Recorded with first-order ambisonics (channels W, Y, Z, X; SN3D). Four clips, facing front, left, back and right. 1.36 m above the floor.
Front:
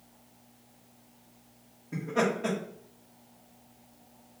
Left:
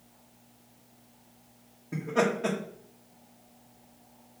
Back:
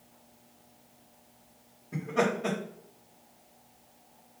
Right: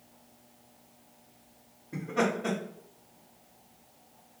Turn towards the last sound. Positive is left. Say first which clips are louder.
# left 2 dB, even
turn(degrees=75)